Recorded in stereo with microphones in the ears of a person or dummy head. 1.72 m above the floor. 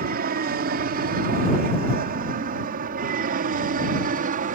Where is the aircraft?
50° right (ahead or behind); by 4.5 s 45° right (ahead or behind).